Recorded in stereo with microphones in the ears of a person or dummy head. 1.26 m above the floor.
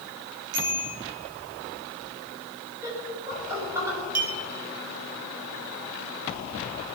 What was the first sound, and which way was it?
A bicycle bell, 65° right (ahead or behind).